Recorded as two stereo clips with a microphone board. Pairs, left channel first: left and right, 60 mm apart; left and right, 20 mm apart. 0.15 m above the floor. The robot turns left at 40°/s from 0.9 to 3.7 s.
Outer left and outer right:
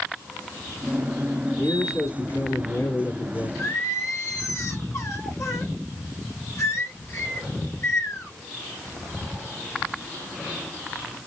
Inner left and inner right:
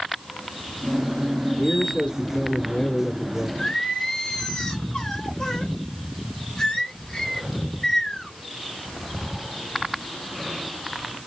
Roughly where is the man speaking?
Behind left.